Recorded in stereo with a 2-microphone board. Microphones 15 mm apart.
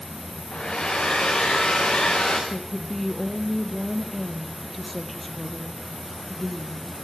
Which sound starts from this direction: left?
A hair dryer, at 0.5 s.